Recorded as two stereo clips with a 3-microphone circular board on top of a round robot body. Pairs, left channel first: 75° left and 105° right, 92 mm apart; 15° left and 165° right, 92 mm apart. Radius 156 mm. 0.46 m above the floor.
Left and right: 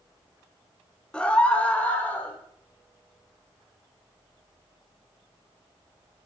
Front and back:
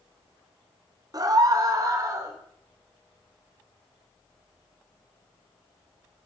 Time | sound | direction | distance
1.1 | a scream | 155° left | 2.5 m